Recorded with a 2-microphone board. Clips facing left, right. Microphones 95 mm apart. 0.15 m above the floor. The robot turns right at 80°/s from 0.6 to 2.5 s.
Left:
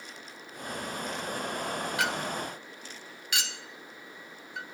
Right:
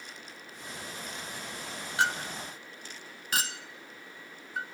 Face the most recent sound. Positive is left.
turn(degrees=-40)  # may be behind; listen again after turning